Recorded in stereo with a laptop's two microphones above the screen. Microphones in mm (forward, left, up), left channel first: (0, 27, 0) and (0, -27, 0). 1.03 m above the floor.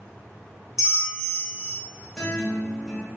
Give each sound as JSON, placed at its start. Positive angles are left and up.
{"t": 0.8, "sound": "a bell", "side_deg": 65, "distance_m": 1.1}
{"t": 2.1, "sound": "a guitar", "side_deg": 15, "distance_m": 1.5}